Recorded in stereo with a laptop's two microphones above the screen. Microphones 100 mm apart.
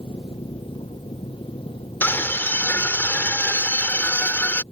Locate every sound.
0.0 s an engine running: 65° left (ahead or behind)
2.0 s a scream: 20° left (ahead or behind)